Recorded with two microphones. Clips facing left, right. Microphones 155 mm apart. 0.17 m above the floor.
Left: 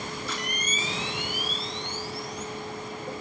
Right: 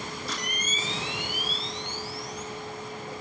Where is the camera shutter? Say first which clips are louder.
Left 1 dB; 40° right (ahead or behind), 1.2 m.